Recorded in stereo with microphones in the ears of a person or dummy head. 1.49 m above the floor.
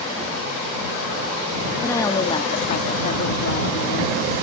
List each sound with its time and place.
1.8 s a woman speaking: 10° left (ahead or behind); by 4.2 s 60° left (ahead or behind)